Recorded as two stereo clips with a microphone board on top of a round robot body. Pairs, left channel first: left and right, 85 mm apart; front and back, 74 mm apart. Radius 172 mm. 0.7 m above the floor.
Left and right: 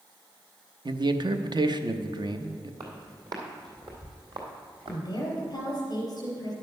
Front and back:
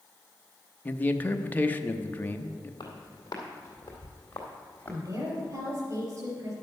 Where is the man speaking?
65° right, 0.9 m.